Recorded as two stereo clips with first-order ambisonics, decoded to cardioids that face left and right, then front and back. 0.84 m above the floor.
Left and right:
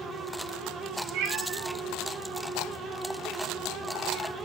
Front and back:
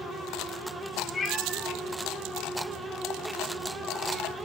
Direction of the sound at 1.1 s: 70° right.